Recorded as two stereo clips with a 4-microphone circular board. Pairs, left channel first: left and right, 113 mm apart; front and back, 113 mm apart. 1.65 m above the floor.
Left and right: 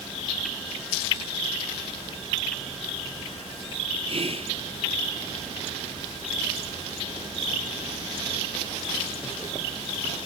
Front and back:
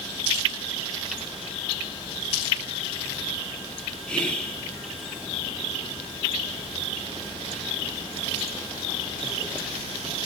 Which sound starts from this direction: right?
Whispering, at 4.1 s.